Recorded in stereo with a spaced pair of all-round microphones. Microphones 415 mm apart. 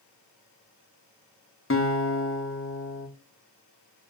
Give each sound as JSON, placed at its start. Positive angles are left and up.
{"t": 1.7, "sound": "a guitar", "side_deg": 30, "distance_m": 1.2}